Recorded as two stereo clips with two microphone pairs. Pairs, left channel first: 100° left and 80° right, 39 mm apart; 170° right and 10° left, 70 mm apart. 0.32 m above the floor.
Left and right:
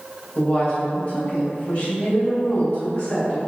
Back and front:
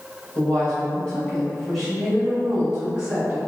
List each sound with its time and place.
0.3 s a woman speaking: 145° left, 1.3 m; by 3.4 s 60° left, 1.6 m